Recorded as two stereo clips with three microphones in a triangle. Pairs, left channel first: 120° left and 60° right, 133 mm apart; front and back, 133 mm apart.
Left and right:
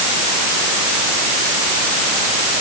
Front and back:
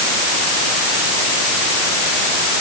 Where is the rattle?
I don't hear a rattle.